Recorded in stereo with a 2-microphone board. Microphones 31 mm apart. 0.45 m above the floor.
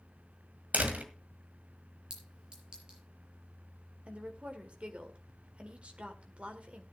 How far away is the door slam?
About 1.9 m.